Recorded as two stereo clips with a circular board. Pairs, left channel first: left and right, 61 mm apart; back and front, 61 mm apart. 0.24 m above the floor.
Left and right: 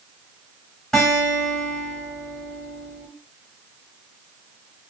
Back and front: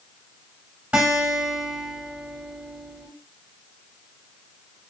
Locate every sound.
0.9 s a guitar: 30° left, 1.4 m